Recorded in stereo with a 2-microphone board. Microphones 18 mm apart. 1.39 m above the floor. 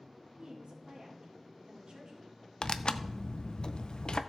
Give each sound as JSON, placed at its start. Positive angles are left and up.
{"t": 0.4, "sound": "a woman speaking", "side_deg": -65, "distance_m": 3.5}
{"t": 2.6, "sound": "tearing paper", "side_deg": 55, "distance_m": 0.6}